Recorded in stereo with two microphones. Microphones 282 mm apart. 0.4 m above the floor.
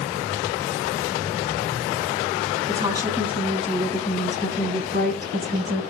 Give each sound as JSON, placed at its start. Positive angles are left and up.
{"t": 2.7, "sound": "a woman speaking", "side_deg": -10, "distance_m": 3.5}